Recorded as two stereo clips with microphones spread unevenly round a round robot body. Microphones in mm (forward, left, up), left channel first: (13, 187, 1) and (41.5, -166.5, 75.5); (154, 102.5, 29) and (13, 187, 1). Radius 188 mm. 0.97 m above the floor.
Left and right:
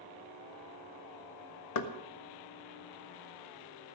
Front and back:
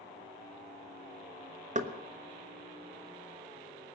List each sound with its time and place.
1.8 s knocking: 115° left, 1.4 m